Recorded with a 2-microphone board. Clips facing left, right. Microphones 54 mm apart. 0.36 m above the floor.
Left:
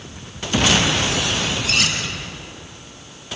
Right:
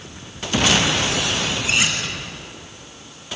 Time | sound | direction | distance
1.6 | cutlery clinking | 20° right (ahead or behind) | 5 m